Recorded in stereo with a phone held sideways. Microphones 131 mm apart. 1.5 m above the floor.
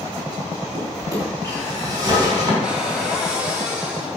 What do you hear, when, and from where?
0.7 s a drawer: 35° right (ahead or behind), 4.5 m
2.6 s a cupboard door: 5° right (ahead or behind), 2.5 m